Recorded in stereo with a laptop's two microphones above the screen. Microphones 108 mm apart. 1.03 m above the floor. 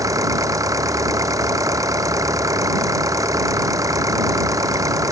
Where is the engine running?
35° right (ahead or behind).